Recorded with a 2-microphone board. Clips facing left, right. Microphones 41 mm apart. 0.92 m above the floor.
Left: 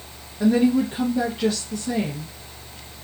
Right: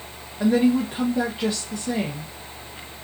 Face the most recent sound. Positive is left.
turn(degrees=-10)  # may be behind; listen again after turning